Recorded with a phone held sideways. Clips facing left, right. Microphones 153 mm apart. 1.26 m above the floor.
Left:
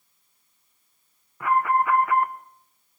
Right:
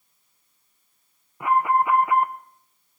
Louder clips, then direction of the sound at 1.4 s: Right 1 dB; 20° right (ahead or behind).